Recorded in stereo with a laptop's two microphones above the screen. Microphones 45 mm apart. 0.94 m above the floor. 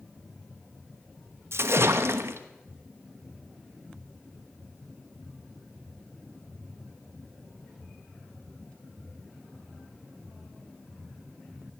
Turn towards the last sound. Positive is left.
turn(degrees=-65)  # may be behind; listen again after turning